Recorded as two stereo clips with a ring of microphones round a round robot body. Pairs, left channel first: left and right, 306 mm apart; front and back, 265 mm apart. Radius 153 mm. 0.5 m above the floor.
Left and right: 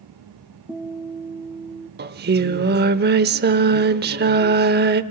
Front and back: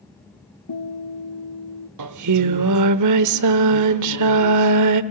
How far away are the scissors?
I don't hear scissors.